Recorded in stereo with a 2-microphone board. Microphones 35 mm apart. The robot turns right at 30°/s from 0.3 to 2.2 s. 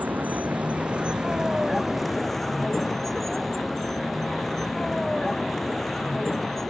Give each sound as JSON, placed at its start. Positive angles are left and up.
{"t": 0.0, "sound": "a vehicle", "side_deg": -55}